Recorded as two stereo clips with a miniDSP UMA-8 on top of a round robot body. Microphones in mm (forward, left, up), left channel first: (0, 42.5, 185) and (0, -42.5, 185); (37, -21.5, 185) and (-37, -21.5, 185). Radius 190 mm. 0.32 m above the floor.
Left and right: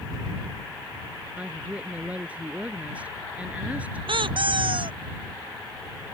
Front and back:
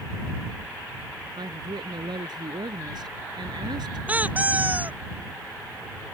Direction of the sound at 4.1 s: 110° right.